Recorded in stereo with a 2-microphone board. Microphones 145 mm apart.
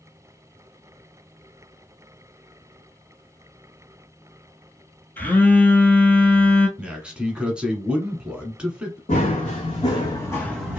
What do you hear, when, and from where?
5.2 s a phone buzzing: 10° left (ahead or behind), 0.8 m
6.8 s a man speaking: 5° right (ahead or behind), 1.1 m
9.1 s running footsteps: 55° left (ahead or behind), 1.5 m; by 10.8 s 10° right (ahead or behind), 0.8 m